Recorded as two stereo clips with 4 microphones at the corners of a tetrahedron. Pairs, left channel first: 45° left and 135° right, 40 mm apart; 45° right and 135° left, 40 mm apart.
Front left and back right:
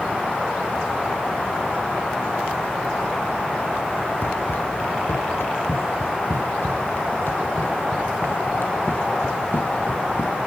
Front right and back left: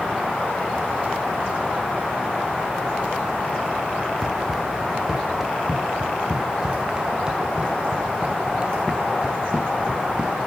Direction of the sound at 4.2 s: 55° left.